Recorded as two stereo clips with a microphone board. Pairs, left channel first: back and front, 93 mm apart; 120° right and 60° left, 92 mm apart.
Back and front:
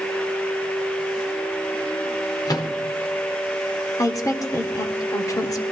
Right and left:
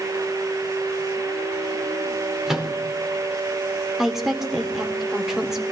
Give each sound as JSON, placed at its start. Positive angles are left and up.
{"t": 2.5, "sound": "a microwave", "azimuth_deg": 145, "distance_m": 1.2}
{"t": 4.0, "sound": "a woman speaking", "azimuth_deg": 145, "distance_m": 1.2}